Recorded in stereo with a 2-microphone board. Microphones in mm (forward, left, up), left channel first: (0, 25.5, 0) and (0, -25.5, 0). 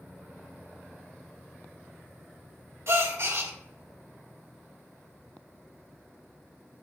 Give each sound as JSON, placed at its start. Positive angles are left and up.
{"t": 2.9, "sound": "a gasp", "side_deg": -55, "distance_m": 1.7}